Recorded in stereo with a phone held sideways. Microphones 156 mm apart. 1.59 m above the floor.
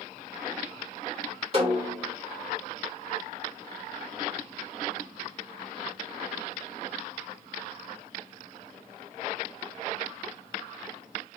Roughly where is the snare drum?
Right.